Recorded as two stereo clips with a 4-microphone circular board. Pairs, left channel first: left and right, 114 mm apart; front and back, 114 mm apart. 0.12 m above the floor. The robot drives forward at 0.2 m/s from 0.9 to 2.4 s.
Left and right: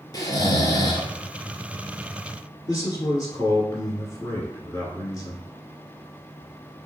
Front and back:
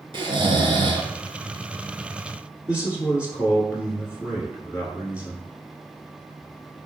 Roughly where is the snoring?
Behind left.